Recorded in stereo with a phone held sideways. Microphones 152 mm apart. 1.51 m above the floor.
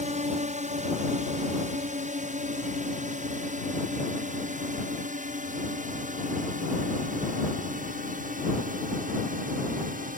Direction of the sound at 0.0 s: 50° right (ahead or behind).